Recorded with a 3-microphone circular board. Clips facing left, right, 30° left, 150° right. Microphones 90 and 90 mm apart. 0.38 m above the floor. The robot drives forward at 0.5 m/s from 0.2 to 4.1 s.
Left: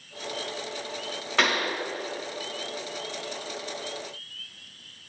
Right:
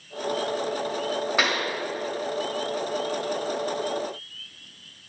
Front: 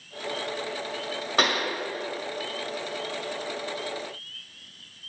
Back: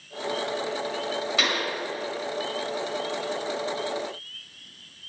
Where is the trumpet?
No trumpet in this recording.